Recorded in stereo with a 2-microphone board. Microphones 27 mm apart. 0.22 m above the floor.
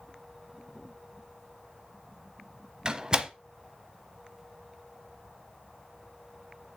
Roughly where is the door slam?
Right.